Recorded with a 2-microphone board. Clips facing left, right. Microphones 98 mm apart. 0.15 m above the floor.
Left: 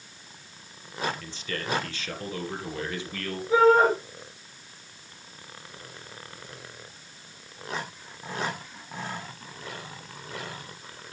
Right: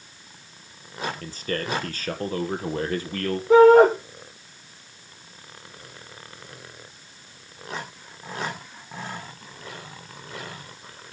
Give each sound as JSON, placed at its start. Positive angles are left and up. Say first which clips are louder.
{"t": 1.2, "sound": "a man speaking", "louder": "right 5 dB", "side_deg": -45, "distance_m": 3.0}
{"t": 3.5, "sound": "a shout", "louder": "right 7 dB", "side_deg": -70, "distance_m": 4.5}